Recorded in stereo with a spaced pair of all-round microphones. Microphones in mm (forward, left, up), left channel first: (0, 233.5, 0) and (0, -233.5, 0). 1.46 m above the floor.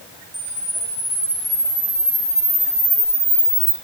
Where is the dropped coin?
No dropped coin in this recording.